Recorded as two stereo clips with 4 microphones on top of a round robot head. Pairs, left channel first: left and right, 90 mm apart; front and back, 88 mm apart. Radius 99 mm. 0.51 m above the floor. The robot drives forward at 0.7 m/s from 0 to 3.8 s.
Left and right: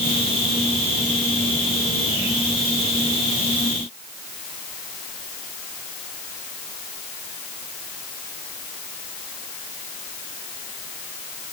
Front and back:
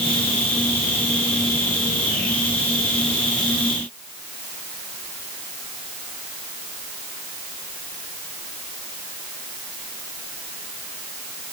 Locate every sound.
Only background noise.